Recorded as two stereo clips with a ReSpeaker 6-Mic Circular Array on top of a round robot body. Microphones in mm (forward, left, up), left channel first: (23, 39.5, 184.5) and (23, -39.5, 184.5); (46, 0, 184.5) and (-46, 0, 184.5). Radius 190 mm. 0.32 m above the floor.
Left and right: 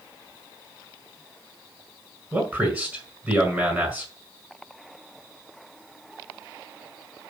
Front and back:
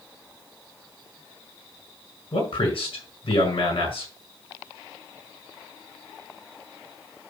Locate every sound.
2.3 s a man speaking: 15° right, 5.5 m